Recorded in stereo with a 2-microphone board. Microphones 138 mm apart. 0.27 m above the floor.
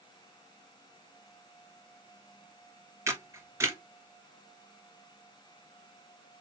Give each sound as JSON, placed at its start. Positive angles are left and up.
{"t": 3.1, "sound": "a camera shutter", "side_deg": -20, "distance_m": 1.4}